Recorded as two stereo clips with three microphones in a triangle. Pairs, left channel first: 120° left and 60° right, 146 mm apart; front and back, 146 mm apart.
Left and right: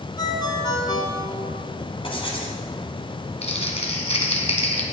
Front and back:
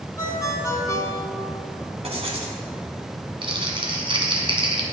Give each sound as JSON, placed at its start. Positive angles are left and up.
{"t": 0.2, "sound": "a ringtone", "azimuth_deg": 65, "distance_m": 1.5}
{"t": 2.0, "sound": "writing", "azimuth_deg": 155, "distance_m": 1.7}
{"t": 3.4, "sound": "crumpling", "azimuth_deg": 140, "distance_m": 1.7}